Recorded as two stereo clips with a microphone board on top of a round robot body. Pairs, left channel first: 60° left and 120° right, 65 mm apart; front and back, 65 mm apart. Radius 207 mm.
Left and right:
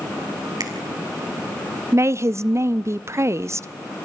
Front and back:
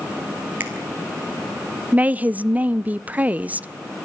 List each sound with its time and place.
0.6 s a finger snap: 120° right, 4 m
1.9 s a woman speaking: 120° right, 0.8 m